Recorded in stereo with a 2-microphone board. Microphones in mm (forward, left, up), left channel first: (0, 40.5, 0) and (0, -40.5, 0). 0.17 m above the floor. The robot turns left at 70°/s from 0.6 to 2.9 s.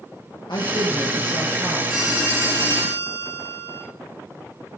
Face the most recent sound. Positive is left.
turn(degrees=-70)